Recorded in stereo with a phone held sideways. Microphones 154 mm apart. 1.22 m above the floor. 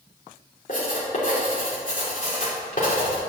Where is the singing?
No singing in this recording.